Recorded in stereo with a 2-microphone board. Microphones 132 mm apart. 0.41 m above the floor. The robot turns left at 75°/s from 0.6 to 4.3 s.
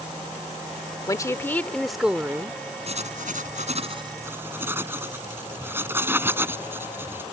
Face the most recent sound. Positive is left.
turn(degrees=-15)  # may be behind; listen again after turning